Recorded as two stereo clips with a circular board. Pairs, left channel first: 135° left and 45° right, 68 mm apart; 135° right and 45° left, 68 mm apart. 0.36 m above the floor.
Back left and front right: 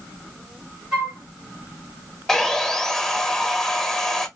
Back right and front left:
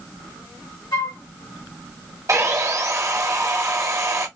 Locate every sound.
0.9 s a flute: 115° right, 2.5 m
2.3 s sawing: 55° left, 1.0 m